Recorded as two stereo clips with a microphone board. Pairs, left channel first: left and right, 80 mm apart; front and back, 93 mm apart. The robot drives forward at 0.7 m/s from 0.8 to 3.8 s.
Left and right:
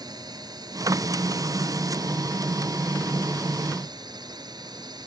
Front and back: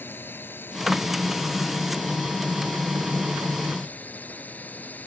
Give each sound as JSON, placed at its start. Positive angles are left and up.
{"t": 0.0, "sound": "a drone", "azimuth_deg": -65}